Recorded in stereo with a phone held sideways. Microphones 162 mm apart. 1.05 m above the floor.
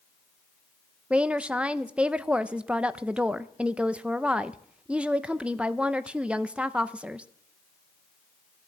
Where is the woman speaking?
5° right (ahead or behind), 0.6 m.